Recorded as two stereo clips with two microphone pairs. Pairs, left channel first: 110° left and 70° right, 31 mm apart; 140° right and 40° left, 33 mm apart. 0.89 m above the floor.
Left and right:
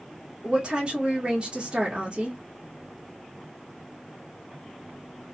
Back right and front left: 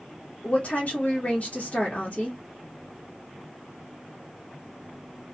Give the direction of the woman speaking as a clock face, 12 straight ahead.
4 o'clock.